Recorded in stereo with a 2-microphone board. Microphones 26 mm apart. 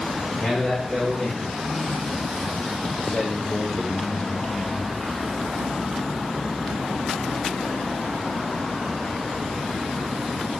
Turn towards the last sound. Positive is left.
turn(degrees=10)  # may be behind; listen again after turning